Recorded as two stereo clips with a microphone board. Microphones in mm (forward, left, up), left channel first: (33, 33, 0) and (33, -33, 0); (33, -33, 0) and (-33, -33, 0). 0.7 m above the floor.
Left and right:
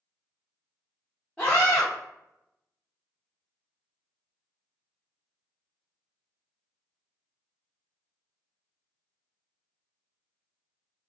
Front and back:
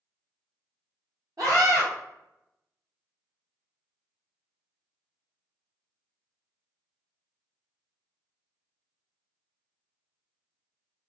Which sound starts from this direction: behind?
A scream, at 1.4 s.